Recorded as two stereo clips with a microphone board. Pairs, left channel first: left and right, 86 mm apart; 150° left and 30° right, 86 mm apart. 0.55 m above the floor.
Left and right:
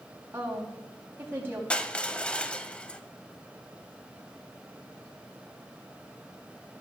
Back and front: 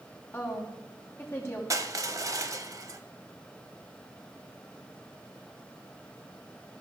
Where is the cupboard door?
I don't hear a cupboard door.